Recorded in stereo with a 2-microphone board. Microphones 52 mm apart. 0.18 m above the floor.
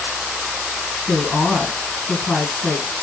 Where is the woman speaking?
30° left (ahead or behind), 1.6 m.